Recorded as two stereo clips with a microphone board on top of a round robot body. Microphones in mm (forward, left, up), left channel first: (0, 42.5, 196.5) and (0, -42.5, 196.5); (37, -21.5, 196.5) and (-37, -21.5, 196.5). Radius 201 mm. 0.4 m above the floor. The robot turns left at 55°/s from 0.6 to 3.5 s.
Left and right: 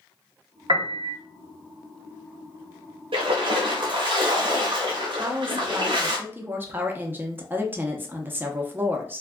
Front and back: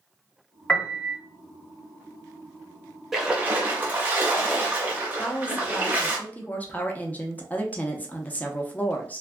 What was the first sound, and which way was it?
A piano, 80° right.